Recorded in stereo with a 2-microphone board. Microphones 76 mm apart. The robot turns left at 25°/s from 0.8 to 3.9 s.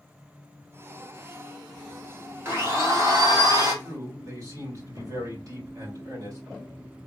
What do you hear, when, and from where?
2.5 s a blender: 30° right, 1.9 m; by 3.7 s 60° right, 1.9 m
3.8 s a man speaking: 45° right (ahead or behind), 3 m